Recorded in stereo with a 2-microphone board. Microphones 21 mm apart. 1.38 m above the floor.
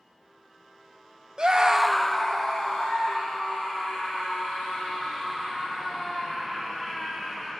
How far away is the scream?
About 0.6 m.